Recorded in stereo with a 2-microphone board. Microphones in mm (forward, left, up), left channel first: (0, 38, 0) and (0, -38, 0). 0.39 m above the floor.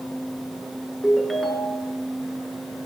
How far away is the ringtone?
About 4 m.